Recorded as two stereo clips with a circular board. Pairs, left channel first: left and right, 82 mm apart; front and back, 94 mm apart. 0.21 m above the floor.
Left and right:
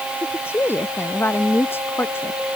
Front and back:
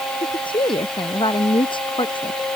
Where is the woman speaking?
30° left.